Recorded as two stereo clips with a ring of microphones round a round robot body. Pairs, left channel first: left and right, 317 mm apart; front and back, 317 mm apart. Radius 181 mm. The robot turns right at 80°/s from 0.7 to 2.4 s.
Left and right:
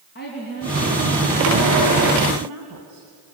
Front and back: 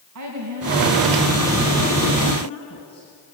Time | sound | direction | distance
0.1 | a woman speaking | 150° left | 3.5 m